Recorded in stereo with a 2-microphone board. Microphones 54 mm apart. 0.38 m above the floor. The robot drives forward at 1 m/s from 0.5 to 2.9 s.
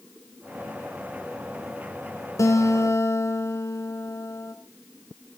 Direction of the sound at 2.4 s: 75° left (ahead or behind).